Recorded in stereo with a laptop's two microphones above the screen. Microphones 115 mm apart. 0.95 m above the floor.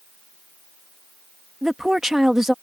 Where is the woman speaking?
5° right (ahead or behind).